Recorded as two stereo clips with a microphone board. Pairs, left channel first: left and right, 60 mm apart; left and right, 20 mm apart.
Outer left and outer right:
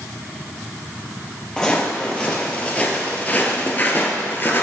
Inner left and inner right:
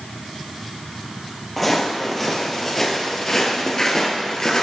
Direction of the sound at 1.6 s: 15° left (ahead or behind).